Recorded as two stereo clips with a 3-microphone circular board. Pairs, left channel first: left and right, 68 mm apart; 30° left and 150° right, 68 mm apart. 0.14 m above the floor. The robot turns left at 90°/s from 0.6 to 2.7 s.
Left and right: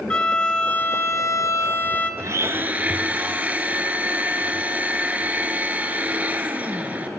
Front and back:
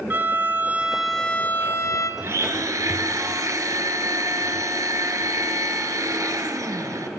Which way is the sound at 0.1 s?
160° left.